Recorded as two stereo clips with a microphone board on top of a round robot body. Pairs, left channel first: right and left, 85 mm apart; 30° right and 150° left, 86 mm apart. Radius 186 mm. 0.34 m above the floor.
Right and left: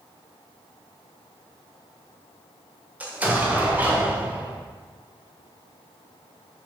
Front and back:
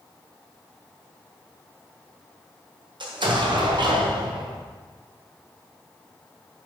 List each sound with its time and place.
3.0 s an explosion: 160° left, 1.5 m